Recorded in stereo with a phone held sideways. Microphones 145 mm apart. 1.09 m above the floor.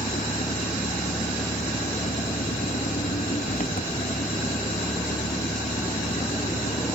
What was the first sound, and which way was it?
An engine running, 75° left (ahead or behind).